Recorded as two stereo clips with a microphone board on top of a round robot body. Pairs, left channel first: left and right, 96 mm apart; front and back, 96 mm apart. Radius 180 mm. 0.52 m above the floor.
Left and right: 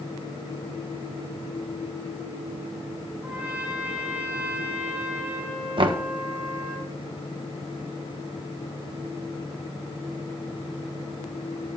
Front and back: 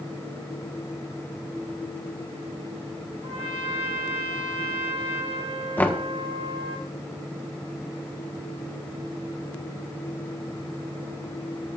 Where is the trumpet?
160° right, 2 m.